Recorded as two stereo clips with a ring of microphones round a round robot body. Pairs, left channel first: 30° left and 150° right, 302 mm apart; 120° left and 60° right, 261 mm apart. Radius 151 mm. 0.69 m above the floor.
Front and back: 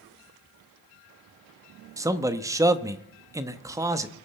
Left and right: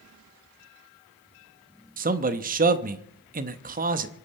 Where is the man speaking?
80° right, 0.9 m.